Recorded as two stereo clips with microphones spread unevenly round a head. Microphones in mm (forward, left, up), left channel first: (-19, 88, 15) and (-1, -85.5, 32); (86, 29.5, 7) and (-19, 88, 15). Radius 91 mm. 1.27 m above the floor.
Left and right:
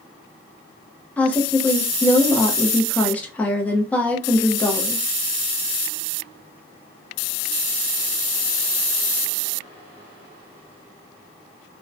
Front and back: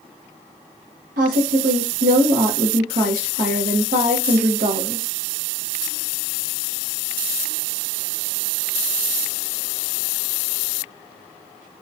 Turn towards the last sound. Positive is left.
turn(degrees=180)